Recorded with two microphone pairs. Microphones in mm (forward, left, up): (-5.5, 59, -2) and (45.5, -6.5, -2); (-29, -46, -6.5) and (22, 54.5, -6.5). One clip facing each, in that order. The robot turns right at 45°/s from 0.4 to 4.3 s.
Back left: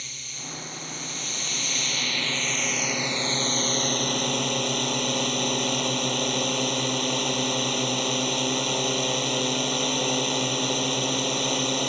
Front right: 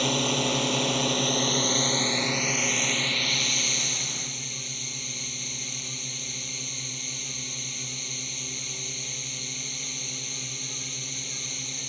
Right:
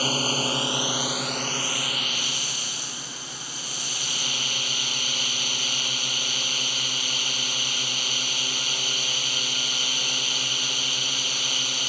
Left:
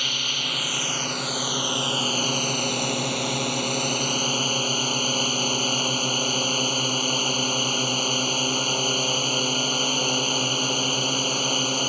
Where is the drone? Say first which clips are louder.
Front right 18 dB, right 8 dB; 65° right; by 11.9 s 110° left.